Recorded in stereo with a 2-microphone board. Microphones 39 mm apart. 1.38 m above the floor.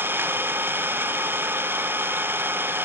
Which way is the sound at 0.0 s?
70° right (ahead or behind).